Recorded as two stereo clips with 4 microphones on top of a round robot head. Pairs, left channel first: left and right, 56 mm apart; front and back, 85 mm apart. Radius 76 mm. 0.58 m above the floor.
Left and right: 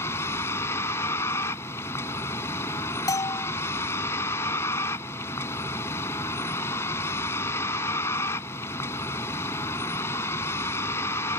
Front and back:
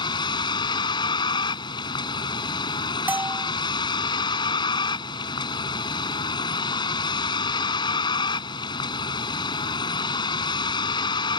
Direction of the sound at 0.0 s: 35° left.